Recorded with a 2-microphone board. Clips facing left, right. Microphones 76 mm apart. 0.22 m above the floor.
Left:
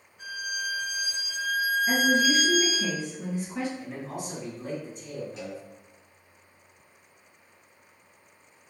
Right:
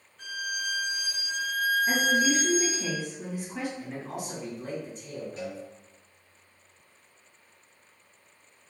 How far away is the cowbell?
About 1.4 m.